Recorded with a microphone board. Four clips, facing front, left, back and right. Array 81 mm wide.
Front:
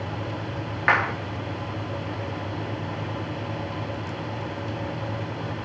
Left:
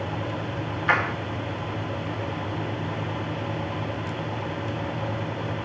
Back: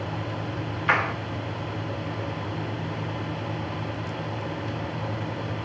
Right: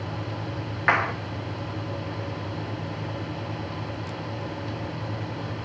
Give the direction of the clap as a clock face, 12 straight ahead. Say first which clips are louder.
Right 1 dB, front 2 dB; 1 o'clock.